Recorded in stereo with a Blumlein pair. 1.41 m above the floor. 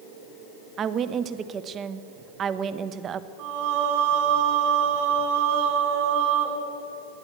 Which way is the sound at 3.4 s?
50° right.